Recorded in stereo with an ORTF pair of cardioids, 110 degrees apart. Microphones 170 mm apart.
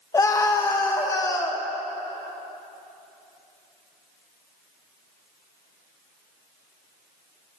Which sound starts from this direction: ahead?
A scream, at 0.1 s.